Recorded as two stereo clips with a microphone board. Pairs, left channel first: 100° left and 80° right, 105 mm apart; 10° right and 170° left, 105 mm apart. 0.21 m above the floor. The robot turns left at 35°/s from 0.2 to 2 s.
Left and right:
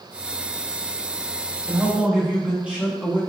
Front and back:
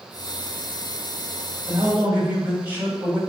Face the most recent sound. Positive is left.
turn(degrees=-145)